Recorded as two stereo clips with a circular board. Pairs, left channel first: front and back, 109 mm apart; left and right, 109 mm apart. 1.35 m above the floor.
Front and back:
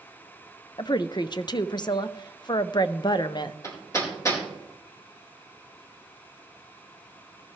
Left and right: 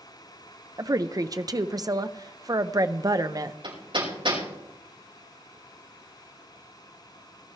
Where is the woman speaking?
40° right, 0.6 m.